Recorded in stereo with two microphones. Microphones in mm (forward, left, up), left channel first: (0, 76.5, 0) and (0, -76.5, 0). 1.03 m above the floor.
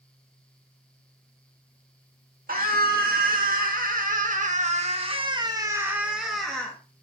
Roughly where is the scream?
Right.